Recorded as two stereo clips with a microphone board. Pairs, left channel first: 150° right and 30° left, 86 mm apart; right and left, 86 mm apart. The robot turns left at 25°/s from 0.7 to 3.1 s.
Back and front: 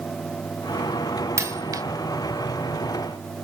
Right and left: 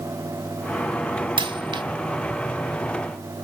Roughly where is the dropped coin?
Left.